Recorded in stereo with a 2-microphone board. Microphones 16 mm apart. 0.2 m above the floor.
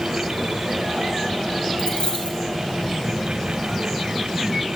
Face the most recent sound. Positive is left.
turn(degrees=85)